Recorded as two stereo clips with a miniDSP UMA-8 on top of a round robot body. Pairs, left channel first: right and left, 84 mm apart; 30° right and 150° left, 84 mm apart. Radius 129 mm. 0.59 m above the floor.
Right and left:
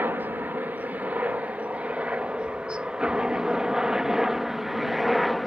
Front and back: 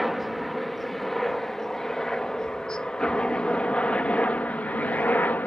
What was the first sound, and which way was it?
A helicopter, 60° left.